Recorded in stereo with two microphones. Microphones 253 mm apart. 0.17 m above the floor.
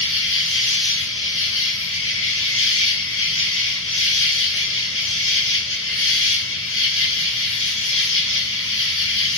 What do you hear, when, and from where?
0.0 s an insect: 55° left (ahead or behind), 0.9 m